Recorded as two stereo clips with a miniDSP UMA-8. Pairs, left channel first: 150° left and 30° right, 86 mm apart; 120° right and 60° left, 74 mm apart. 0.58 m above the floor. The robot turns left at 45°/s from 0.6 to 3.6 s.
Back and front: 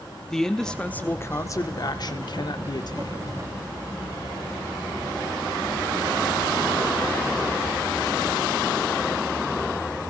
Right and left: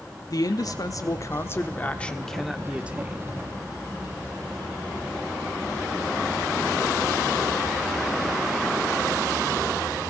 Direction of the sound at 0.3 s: 125° right.